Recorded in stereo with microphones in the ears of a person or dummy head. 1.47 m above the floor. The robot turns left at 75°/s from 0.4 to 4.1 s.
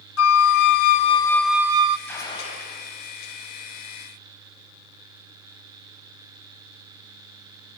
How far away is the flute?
About 0.5 m.